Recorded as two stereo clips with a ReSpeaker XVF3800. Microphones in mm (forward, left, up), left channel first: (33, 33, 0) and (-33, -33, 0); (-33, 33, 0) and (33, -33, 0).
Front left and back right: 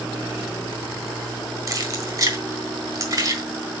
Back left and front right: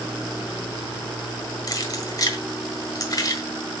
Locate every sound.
1.7 s keys jangling: straight behind, 1.5 m